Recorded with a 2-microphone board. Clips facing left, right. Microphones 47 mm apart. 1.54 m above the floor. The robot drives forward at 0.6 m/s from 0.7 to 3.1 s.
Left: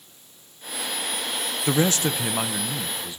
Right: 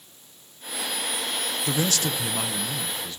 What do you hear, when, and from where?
1.7 s a man speaking: 35° left (ahead or behind), 0.5 m; by 3.2 s 15° left (ahead or behind), 1.1 m